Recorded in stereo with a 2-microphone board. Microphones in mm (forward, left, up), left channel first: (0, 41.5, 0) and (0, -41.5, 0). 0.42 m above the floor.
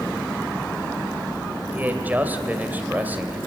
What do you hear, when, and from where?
1.7 s a man speaking: 20° right (ahead or behind), 2.5 m